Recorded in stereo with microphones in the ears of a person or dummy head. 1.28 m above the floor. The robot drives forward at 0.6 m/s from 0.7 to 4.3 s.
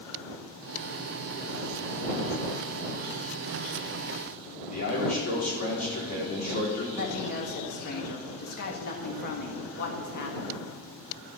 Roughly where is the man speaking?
Left.